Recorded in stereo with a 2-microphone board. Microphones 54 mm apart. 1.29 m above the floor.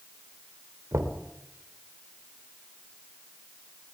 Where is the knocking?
80° right, 3 m.